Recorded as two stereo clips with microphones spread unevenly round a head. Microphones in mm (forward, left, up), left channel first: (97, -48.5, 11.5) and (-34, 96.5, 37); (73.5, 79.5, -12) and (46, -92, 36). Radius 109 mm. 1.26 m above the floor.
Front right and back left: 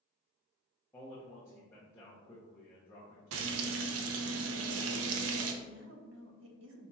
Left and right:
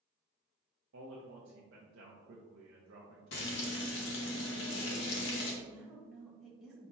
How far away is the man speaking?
About 0.6 m.